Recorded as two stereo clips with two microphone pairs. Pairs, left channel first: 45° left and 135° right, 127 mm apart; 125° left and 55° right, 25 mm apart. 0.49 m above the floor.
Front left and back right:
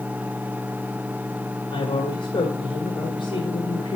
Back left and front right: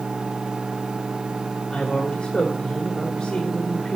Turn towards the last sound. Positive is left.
turn(degrees=85)